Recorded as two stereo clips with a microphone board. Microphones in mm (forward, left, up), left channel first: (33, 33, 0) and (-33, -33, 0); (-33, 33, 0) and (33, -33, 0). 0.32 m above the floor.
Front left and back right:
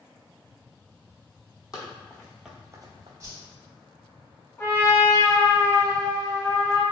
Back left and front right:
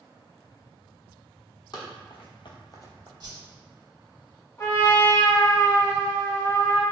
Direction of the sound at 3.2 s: 80° right.